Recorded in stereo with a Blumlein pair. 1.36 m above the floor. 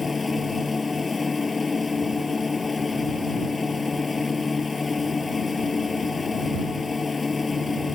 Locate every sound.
0.0 s a machine running: 10° left